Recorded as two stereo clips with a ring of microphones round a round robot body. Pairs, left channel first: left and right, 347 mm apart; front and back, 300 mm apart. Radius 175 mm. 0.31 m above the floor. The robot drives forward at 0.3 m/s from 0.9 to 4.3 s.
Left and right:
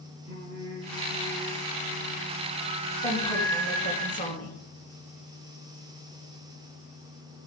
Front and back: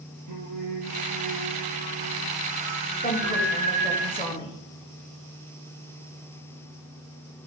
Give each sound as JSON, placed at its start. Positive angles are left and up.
{"t": 0.3, "sound": "singing", "azimuth_deg": 160, "distance_m": 2.5}
{"t": 3.0, "sound": "a woman speaking", "azimuth_deg": 40, "distance_m": 1.7}